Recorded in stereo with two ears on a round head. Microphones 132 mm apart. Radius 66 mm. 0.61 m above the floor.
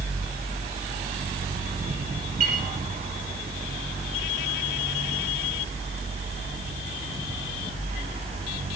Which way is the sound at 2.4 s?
55° right (ahead or behind).